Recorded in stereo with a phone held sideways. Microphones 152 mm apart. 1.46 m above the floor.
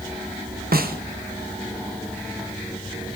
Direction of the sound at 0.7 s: 80° right.